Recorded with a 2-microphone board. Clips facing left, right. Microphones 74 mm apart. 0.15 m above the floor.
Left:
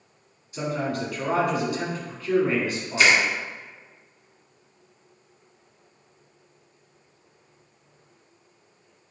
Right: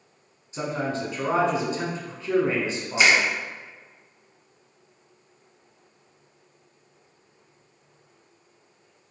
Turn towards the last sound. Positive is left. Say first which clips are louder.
# even
turn(degrees=-20)  # may be behind; listen again after turning